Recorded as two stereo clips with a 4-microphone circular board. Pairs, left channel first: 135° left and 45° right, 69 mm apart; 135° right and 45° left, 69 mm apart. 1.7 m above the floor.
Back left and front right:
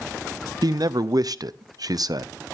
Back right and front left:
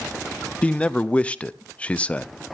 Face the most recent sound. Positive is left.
turn(degrees=-65)